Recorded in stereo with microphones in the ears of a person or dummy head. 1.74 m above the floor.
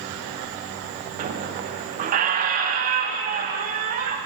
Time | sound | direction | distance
1.2 | a squeak | 45° right (ahead or behind) | 1.4 m